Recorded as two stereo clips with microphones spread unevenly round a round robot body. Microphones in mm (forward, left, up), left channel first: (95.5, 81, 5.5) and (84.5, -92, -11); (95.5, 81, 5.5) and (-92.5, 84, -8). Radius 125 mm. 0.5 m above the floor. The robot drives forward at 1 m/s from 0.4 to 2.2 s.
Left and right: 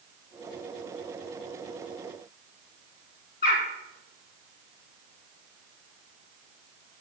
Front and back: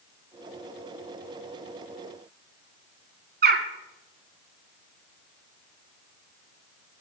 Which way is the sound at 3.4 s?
140° left.